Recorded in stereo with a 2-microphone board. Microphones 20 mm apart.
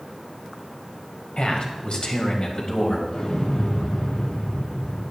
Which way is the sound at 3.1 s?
55° left (ahead or behind).